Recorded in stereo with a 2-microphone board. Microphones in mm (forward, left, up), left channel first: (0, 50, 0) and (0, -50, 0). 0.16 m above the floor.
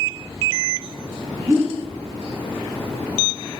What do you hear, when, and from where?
1.5 s a whoosh: 25° right (ahead or behind), 3.5 m